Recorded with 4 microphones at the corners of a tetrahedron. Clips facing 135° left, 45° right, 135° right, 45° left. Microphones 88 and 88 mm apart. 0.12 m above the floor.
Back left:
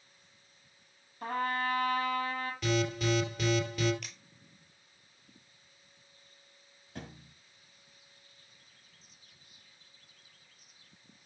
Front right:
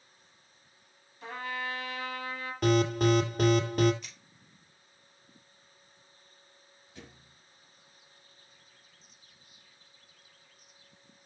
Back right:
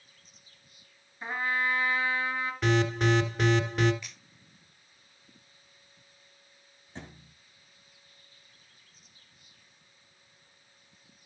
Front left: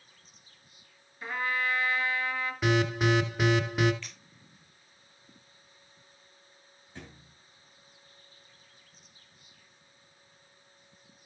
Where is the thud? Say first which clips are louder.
Back left 5 dB, back right 2 dB; 160° left, 1.9 m.